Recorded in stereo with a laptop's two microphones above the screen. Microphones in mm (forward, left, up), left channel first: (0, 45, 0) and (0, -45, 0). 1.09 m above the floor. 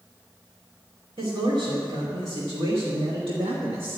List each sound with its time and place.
1.2 s a man speaking: 70° right (ahead or behind), 2.5 m